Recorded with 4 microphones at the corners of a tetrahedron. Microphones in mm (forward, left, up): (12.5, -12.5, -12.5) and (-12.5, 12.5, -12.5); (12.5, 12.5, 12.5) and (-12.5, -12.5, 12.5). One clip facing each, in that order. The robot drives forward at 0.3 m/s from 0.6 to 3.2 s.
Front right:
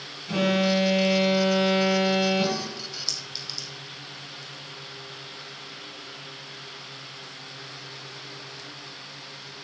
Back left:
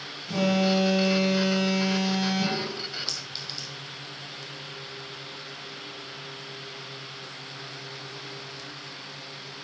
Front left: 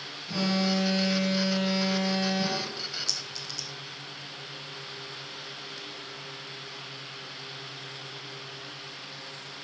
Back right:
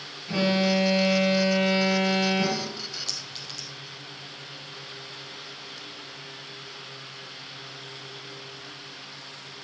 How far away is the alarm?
About 1.9 m.